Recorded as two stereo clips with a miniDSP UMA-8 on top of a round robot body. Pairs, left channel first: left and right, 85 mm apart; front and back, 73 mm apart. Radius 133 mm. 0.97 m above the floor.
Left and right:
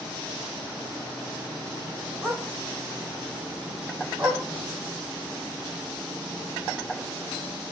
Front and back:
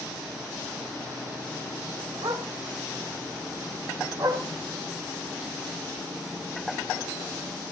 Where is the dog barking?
170° right, 5 m; by 4.4 s 155° right, 3.5 m.